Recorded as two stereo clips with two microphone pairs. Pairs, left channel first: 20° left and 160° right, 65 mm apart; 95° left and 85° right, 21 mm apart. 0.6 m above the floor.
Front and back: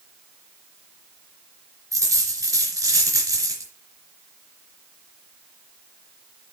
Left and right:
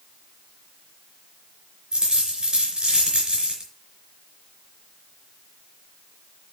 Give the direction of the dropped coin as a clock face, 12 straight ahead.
4 o'clock.